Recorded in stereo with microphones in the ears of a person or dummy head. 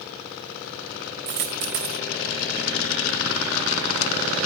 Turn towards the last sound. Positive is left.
turn(degrees=-40)  # may be behind; listen again after turning